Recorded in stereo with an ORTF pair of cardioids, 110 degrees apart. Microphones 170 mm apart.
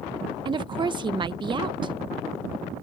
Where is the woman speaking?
25° right.